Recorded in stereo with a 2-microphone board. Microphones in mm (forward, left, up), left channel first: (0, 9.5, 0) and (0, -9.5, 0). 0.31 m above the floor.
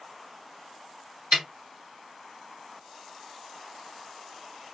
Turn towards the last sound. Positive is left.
turn(degrees=-40)  # may be behind; listen again after turning